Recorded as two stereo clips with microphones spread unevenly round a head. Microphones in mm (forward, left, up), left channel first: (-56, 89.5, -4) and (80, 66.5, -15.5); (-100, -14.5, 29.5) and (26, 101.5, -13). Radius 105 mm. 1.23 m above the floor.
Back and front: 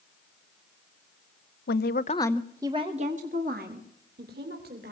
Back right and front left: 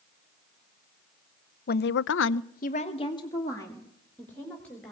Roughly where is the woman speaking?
Behind.